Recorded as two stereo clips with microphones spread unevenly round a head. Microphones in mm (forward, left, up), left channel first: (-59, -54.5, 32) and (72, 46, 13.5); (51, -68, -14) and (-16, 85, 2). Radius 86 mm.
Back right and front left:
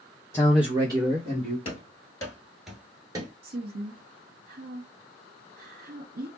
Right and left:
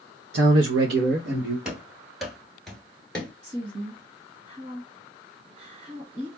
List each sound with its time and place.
0.3 s a man speaking: 140° left, 0.5 m; by 1.6 s 90° left, 1.4 m
1.6 s running footsteps: 170° right, 1.3 m; by 3.3 s 20° left, 1.0 m
3.4 s a woman speaking: 55° left, 1.7 m